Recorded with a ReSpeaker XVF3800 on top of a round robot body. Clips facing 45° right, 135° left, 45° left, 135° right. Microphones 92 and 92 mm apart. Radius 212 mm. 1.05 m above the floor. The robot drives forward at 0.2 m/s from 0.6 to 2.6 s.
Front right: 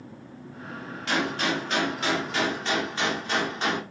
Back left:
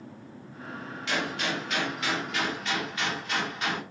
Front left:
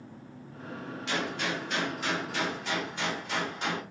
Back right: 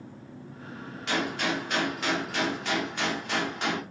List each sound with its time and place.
1.1 s a gunshot: 95° right, 2 m; by 3.8 s 105° right, 2 m